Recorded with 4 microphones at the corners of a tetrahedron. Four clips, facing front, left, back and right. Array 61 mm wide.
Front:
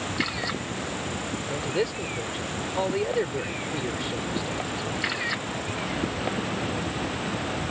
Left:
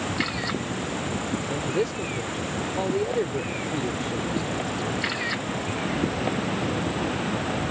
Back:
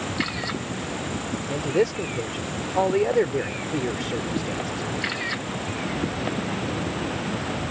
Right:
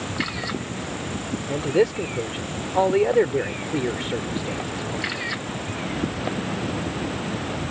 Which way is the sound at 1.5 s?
110° right.